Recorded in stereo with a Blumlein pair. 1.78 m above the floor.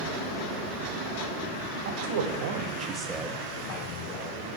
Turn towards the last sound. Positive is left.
turn(degrees=50)